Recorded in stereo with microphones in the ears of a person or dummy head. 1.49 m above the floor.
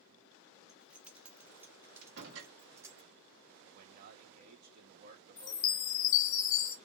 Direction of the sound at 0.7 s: Centre (ahead or behind).